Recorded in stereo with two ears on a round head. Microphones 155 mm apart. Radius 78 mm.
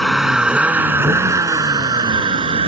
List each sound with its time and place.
0.0 s a vehicle: centre (ahead or behind); by 2.7 s 30° right (ahead or behind)